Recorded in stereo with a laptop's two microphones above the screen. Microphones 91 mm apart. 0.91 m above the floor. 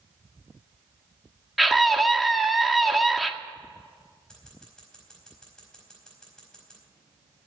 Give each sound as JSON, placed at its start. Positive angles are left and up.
{"t": 1.6, "sound": "a scream", "side_deg": 0, "distance_m": 1.9}
{"t": 4.3, "sound": "scissors", "side_deg": 10, "distance_m": 4.5}